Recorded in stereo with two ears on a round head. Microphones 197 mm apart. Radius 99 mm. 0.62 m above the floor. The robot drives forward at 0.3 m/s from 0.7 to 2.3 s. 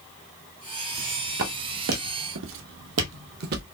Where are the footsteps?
70° right (ahead or behind), 1.7 m; by 3.6 s 45° right (ahead or behind), 1.0 m.